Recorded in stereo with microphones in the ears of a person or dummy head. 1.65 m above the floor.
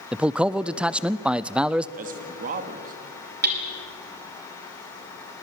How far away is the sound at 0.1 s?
About 0.5 m.